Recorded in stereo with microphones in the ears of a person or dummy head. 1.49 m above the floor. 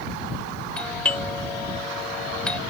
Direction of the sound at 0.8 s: 10° left (ahead or behind).